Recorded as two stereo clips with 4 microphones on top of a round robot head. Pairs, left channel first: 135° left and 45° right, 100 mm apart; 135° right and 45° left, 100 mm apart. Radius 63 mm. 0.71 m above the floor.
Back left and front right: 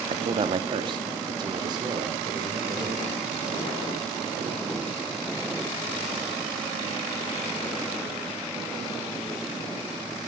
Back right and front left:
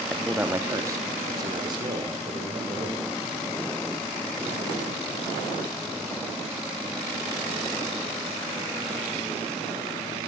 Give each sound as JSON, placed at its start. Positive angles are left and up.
{"t": 0.1, "sound": "a man speaking", "azimuth_deg": -40, "distance_m": 0.8}